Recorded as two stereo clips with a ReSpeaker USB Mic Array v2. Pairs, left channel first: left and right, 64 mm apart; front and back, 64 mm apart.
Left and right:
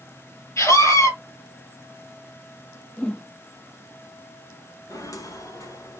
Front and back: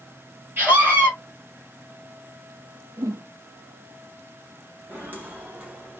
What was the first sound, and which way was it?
A scream, 125° left.